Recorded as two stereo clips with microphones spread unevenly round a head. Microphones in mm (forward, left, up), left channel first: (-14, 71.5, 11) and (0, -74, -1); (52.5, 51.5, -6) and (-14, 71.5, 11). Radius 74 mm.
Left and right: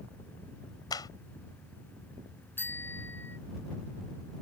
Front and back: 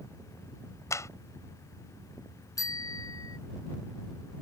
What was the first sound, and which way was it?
A clap, 30° left.